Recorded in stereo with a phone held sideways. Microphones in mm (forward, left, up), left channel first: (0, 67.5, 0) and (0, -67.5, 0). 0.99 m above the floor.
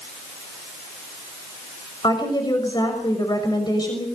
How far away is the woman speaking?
About 6 m.